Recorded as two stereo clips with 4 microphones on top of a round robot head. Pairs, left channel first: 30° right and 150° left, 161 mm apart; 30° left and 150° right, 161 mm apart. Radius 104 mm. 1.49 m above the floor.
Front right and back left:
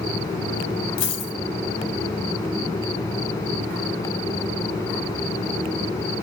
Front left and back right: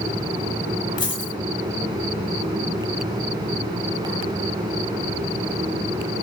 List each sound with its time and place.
1.0 s a dropped coin: 30° right, 2.5 m